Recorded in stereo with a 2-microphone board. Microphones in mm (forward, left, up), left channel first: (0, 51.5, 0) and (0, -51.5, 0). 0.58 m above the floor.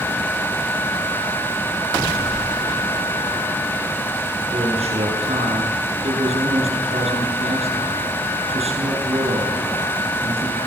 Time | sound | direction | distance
4.5 | a man speaking | 80° right | 8.5 m